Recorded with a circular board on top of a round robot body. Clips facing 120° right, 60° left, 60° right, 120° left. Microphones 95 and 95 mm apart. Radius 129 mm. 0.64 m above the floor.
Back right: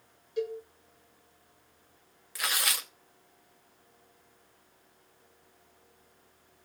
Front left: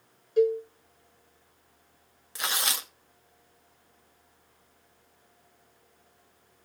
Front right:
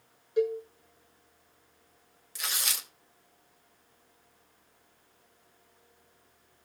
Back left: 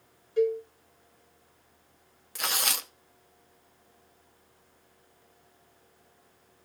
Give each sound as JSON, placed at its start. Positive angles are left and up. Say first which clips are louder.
{"t": 0.4, "sound": "a cowbell", "louder": "front left 11 dB, back left 2 dB", "azimuth_deg": 15, "distance_m": 1.5}
{"t": 2.4, "sound": "tearing paper", "louder": "front left 1 dB, back left 6 dB", "azimuth_deg": 120, "distance_m": 1.0}